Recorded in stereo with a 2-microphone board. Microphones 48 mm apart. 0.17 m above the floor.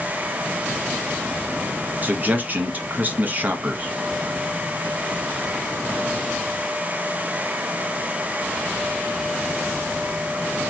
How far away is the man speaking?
About 1.2 m.